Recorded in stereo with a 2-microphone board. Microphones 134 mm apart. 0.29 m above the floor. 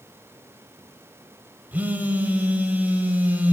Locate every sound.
1.7 s a phone buzzing: 15° right (ahead or behind), 1.0 m